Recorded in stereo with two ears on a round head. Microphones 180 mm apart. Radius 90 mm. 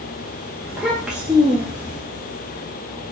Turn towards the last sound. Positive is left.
turn(degrees=-5)  # may be behind; listen again after turning